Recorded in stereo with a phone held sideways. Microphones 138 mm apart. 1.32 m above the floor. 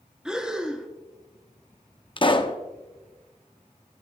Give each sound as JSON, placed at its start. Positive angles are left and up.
{"t": 0.2, "sound": "breathing", "side_deg": -5, "distance_m": 0.9}
{"t": 2.2, "sound": "a pop", "side_deg": 35, "distance_m": 0.7}